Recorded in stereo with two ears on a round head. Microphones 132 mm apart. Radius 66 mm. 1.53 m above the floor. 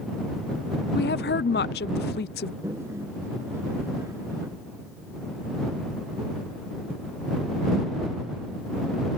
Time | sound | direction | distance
0.9 | a woman speaking | 75° left (ahead or behind) | ?
2.6 | a toilet flushing | 20° right (ahead or behind) | ?